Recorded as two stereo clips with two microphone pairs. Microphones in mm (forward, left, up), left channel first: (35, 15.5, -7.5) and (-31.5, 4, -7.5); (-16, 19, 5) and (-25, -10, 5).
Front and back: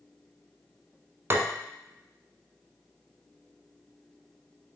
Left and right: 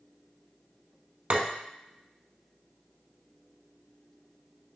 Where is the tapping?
125° right, 0.6 m.